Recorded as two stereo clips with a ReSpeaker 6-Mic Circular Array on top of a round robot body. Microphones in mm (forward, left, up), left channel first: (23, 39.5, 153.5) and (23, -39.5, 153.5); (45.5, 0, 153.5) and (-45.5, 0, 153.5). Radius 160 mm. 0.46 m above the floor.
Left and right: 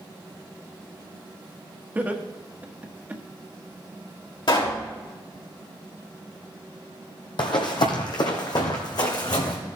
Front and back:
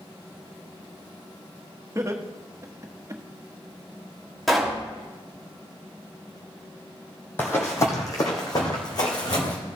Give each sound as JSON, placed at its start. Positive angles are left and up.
{"t": 1.9, "sound": "laughter", "azimuth_deg": -145, "distance_m": 1.5}
{"t": 4.5, "sound": "a pop", "azimuth_deg": 90, "distance_m": 3.0}
{"t": 7.4, "sound": "running footsteps", "azimuth_deg": 70, "distance_m": 1.0}